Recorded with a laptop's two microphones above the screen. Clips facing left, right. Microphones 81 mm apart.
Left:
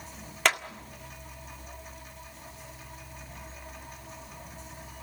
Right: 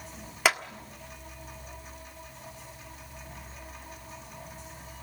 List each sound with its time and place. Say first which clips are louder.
0.5 s a clap: right 1 dB; 5° right (ahead or behind), 1.5 m